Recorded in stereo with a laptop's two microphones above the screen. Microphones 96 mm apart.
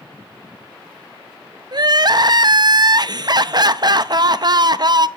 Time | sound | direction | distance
1.7 | crying | 45° right (ahead or behind) | 0.5 m